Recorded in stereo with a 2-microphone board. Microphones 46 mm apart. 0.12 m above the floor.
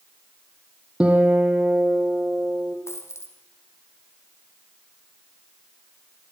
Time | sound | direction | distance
1.0 | a guitar | 25° right (ahead or behind) | 5 m
2.9 | a dropped coin | 80° left | 5.5 m